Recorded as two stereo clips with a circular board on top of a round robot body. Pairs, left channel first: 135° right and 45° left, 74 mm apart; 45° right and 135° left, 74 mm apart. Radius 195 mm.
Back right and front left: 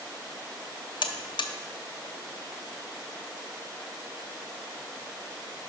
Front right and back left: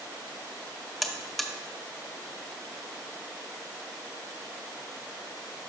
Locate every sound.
1.0 s a buzzer: 135° right, 0.5 m